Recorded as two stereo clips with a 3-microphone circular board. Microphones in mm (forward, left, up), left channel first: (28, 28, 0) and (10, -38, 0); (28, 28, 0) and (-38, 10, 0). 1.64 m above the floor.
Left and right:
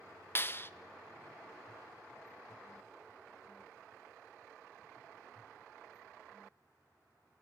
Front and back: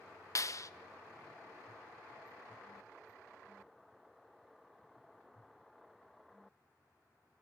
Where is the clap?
30° left, 0.5 m.